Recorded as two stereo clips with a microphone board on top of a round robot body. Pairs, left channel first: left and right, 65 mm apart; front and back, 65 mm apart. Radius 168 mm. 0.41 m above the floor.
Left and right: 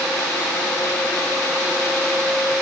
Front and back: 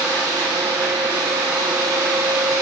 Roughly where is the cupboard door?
I don't hear a cupboard door.